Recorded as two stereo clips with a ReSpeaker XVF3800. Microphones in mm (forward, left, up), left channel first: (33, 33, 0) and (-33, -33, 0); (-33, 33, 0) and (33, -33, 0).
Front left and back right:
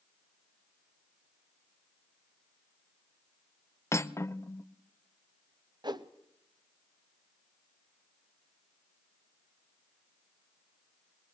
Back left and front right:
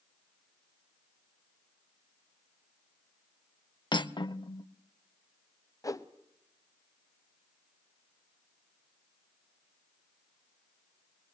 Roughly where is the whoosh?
Behind.